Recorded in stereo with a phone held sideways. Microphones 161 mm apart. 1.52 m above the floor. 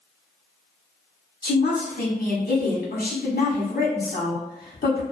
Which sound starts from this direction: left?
A woman speaking, at 1.4 s.